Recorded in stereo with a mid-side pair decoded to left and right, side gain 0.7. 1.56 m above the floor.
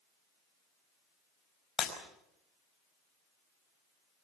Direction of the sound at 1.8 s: 25° left.